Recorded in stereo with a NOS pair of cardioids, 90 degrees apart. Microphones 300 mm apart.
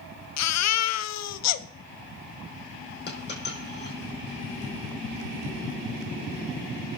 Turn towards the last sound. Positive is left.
turn(degrees=35)